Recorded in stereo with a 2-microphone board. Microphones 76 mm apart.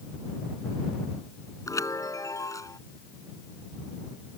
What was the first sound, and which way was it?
A chime, 45° left (ahead or behind).